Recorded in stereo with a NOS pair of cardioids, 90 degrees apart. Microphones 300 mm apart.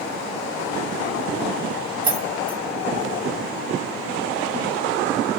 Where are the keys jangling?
25° right, 1.4 m.